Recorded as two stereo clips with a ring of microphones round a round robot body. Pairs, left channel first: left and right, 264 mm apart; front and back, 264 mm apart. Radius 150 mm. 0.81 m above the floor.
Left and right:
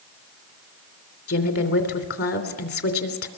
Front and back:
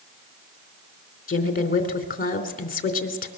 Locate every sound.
1.3 s a woman speaking: 55° left, 3 m